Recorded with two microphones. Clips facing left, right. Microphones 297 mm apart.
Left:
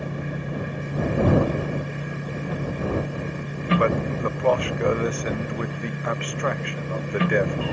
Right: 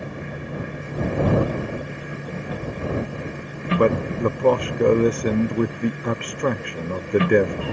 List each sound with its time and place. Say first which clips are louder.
3.8 s a man speaking: right 7 dB; 45° right (ahead or behind)